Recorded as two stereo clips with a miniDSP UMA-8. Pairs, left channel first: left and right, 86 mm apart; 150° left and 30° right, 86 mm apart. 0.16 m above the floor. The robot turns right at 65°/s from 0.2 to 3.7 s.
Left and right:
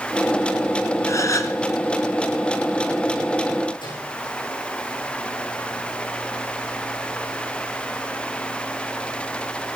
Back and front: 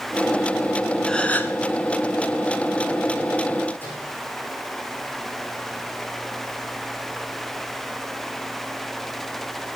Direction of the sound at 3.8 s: 85° left.